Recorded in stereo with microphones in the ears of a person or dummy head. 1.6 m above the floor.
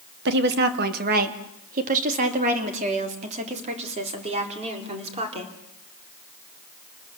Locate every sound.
0.2 s a woman speaking: 60° right (ahead or behind), 1.9 m; by 5.5 s 30° right (ahead or behind), 4.5 m